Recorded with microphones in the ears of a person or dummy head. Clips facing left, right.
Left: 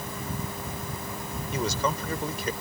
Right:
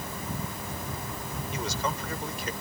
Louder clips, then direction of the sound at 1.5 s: Left 5 dB; 85° left.